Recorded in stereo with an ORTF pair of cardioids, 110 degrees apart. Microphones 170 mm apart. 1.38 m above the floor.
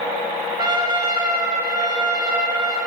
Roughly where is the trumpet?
Ahead right.